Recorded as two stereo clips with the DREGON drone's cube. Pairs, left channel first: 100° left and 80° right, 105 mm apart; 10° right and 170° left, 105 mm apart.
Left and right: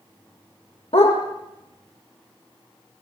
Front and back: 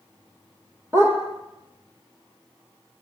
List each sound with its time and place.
0.9 s a dog barking: 105° left, 8 m